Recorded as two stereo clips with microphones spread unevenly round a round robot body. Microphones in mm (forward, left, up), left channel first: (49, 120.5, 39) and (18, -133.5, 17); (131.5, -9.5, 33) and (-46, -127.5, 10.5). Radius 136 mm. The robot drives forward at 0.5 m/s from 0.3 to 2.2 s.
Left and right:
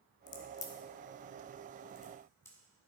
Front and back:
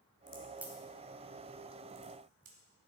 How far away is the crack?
About 0.7 m.